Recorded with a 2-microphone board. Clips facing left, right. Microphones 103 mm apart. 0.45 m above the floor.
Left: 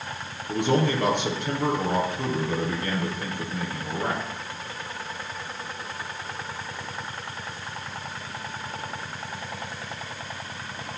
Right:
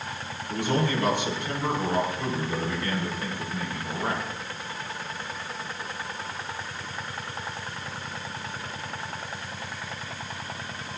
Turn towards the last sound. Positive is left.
turn(degrees=60)  # may be behind; listen again after turning